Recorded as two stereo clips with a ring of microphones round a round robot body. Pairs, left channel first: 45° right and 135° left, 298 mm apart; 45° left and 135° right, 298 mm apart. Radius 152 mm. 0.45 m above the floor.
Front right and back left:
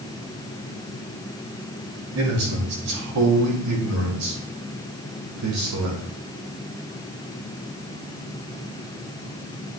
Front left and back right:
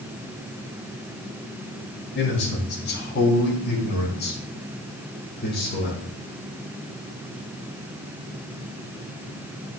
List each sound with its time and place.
2.1 s a man speaking: 100° left, 3.5 m; by 6.0 s 105° left, 5.5 m